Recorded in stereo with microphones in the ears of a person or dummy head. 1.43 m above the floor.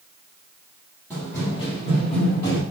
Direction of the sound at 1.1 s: Centre (ahead or behind).